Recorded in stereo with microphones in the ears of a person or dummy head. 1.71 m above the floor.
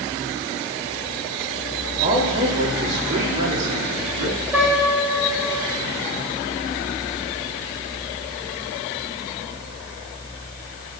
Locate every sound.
2.0 s a man speaking: 40° right (ahead or behind), 3.5 m; by 4.4 s 85° right, 4 m
4.5 s a piano: 10° right (ahead or behind), 6 m